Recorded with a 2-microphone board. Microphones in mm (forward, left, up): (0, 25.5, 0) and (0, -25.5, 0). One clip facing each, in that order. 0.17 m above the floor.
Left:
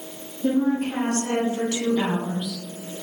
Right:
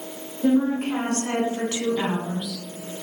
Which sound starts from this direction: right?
A woman speaking, at 0.4 s.